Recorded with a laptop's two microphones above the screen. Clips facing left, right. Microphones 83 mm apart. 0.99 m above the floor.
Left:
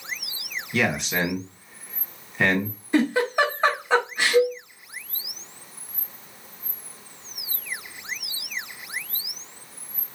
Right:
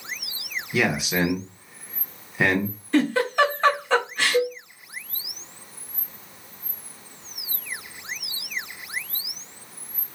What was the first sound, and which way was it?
A man speaking, 5° right (ahead or behind).